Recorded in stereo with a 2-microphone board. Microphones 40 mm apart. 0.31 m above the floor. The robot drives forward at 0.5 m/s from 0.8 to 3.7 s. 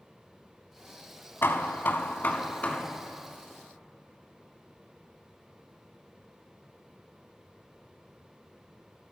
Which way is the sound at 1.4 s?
70° left (ahead or behind).